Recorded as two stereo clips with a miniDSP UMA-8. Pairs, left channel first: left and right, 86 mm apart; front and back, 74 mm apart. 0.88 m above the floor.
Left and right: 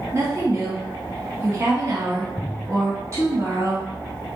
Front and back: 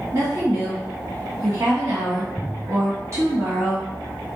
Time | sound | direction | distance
0.1 | a woman speaking | 140° right | 1.5 m